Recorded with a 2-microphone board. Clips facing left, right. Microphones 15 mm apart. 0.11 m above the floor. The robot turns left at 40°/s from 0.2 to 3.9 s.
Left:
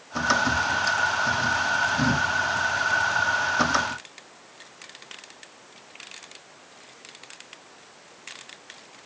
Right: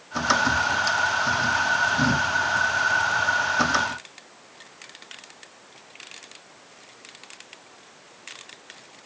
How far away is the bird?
No bird in this recording.